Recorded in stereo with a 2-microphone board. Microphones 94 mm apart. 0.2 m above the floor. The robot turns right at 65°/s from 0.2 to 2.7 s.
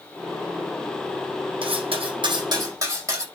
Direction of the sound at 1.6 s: 110° right.